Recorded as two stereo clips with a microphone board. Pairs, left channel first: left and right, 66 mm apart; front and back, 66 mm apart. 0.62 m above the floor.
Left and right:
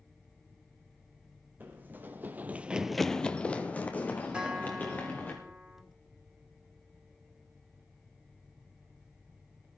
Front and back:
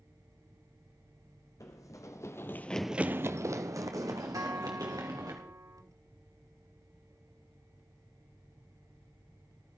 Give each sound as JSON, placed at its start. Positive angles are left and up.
{"t": 1.6, "sound": "running footsteps", "azimuth_deg": -30, "distance_m": 1.7}
{"t": 4.3, "sound": "a guitar", "azimuth_deg": -165, "distance_m": 1.4}